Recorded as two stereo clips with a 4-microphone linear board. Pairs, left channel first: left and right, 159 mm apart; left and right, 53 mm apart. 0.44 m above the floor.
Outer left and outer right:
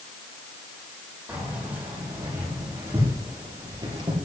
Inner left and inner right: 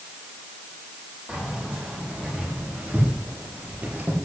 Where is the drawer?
I don't hear a drawer.